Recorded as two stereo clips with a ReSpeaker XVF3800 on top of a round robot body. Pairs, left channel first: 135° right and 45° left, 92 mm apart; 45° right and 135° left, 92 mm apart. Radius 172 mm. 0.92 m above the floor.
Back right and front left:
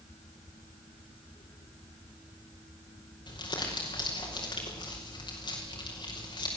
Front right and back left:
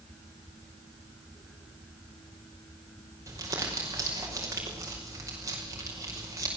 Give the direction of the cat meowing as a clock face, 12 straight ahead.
I don't hear a cat meowing.